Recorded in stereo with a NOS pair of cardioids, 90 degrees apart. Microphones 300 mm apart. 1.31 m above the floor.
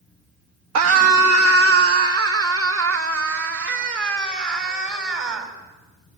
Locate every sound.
0.8 s a scream: 60° right, 2 m; by 5.5 s 40° right, 8 m